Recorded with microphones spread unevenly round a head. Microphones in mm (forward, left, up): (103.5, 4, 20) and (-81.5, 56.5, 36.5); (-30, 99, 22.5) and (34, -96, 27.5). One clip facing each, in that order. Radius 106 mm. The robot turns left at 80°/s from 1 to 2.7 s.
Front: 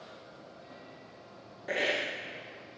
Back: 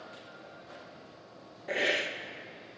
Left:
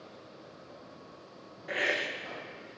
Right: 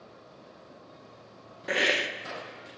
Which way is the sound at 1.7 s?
100° right.